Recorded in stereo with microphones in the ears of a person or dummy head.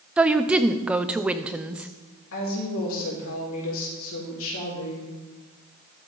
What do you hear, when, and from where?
0.2 s a woman speaking: 5° right (ahead or behind), 0.5 m
2.3 s a woman speaking: 80° left, 4 m